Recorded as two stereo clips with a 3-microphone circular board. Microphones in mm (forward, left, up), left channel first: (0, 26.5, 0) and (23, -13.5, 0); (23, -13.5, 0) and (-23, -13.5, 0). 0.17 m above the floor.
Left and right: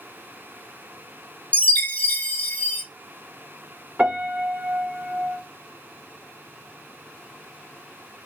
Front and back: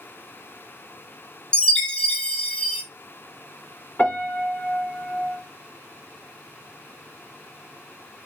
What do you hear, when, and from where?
1.5 s a chime: 65° left, 0.7 m
4.0 s a piano: 20° right, 1.9 m